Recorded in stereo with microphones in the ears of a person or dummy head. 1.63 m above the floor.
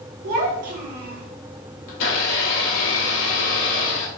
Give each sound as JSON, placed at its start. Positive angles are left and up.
{"t": 0.2, "sound": "a child speaking", "side_deg": -35, "distance_m": 0.8}
{"t": 1.9, "sound": "a blender", "side_deg": 70, "distance_m": 1.5}